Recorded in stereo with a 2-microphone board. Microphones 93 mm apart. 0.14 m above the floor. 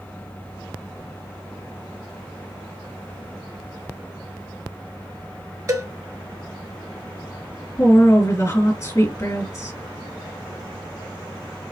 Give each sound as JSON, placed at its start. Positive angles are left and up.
{"t": 5.7, "sound": "a cowbell", "side_deg": -40, "distance_m": 0.8}
{"t": 7.8, "sound": "a woman speaking", "side_deg": 35, "distance_m": 2.5}